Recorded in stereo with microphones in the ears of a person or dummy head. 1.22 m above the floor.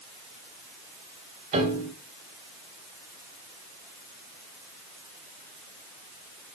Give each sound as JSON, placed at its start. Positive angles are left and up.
{"t": 1.5, "sound": "a piano", "side_deg": -35, "distance_m": 2.5}